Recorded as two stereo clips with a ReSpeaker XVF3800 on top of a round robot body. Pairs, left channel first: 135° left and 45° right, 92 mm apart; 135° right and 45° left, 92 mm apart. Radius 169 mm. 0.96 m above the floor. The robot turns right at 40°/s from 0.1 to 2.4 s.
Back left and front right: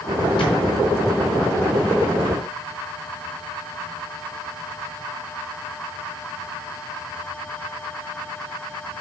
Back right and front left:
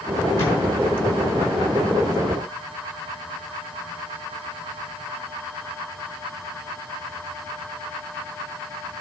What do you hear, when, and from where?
0.4 s a thud: 165° left, 4 m; by 0.6 s 170° left, 4 m